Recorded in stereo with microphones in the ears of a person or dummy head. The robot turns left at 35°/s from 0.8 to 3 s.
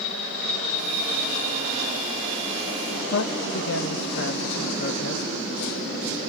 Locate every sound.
3.1 s a man speaking: 65° left (ahead or behind), 1.6 m